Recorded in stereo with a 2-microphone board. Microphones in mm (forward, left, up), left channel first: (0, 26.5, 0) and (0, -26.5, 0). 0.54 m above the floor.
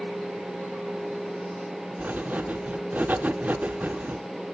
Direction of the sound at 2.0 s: 30° right (ahead or behind).